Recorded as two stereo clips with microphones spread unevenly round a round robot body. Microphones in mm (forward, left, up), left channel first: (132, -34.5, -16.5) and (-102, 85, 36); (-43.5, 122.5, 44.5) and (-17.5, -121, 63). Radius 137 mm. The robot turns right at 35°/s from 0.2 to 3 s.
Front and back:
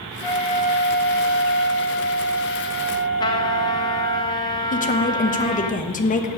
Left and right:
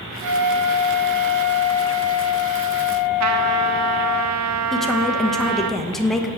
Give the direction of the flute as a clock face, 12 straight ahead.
4 o'clock.